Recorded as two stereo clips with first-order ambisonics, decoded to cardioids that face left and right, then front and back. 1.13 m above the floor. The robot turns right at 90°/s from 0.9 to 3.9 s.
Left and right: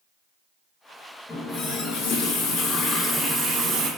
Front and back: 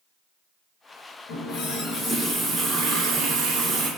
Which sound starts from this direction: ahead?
A running tap, at 1.3 s.